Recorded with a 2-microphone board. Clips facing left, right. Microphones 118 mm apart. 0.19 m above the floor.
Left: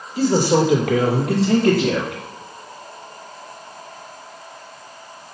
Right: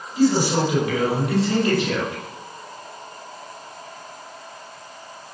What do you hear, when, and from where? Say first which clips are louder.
0.2 s a man speaking: left 2 dB; 75° left (ahead or behind), 5.5 m; by 2.2 s 70° left (ahead or behind), 5.5 m